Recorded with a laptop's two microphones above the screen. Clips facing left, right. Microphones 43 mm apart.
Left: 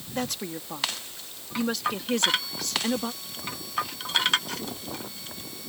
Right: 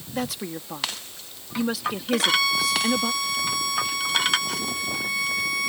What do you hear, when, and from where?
0.1 s a woman speaking: 5° right (ahead or behind)
2.1 s a violin: 90° right